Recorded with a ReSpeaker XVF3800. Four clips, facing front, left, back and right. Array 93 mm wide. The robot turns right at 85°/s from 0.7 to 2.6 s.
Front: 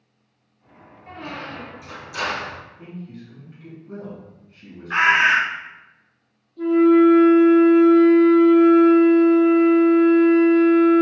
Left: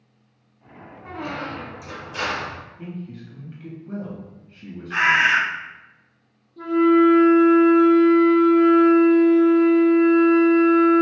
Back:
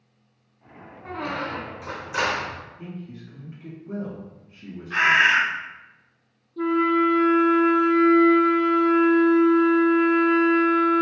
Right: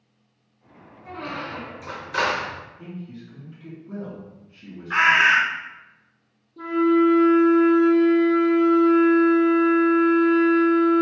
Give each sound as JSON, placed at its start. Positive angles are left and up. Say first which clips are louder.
{"t": 1.1, "sound": "a squeak", "louder": "left 2 dB, back 4 dB", "azimuth_deg": 150, "distance_m": 0.7}
{"t": 2.8, "sound": "a man speaking", "louder": "left 2 dB, front 1 dB", "azimuth_deg": 105, "distance_m": 1.6}
{"t": 4.9, "sound": "a bird", "louder": "right 1 dB, front 2 dB", "azimuth_deg": -35, "distance_m": 1.1}
{"t": 6.6, "sound": "a flute", "louder": "left 3 dB, front 7 dB", "azimuth_deg": -165, "distance_m": 1.5}